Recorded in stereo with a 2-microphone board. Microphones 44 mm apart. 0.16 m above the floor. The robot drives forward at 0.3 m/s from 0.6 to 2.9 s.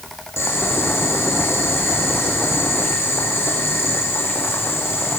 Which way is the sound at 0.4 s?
75° left (ahead or behind).